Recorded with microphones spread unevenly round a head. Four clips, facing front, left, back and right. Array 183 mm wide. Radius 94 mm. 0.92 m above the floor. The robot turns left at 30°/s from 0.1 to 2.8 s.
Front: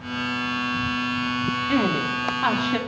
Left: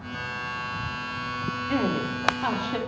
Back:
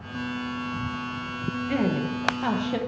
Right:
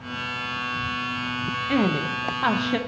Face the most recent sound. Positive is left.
turn(degrees=-145)